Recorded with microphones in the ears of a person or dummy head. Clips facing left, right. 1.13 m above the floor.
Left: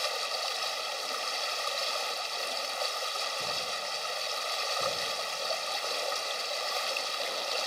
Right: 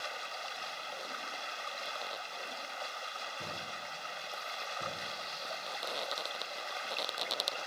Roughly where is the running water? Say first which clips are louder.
Left 8 dB; left.